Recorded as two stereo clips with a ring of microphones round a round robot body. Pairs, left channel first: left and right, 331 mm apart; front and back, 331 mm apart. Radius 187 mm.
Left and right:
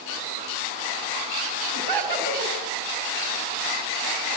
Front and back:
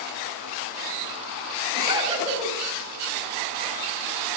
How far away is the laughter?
About 4 m.